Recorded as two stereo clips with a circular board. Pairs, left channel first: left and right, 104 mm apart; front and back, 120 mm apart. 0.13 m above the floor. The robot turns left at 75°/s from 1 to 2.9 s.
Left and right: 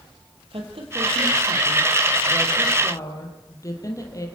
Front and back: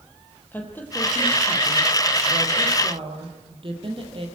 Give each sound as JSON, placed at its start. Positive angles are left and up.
{"t": 0.5, "sound": "a woman speaking", "azimuth_deg": -75, "distance_m": 4.0}